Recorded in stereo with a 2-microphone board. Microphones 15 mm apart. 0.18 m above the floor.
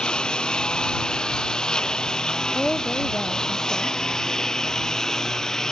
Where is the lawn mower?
65° left (ahead or behind); by 5.7 s 40° left (ahead or behind).